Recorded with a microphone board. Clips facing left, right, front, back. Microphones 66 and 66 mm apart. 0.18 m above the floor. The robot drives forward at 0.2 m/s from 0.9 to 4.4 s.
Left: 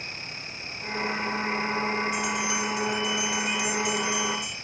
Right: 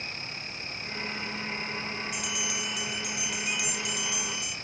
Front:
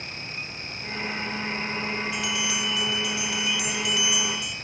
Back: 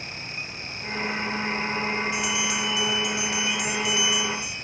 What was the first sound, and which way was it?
A bell, 110° right.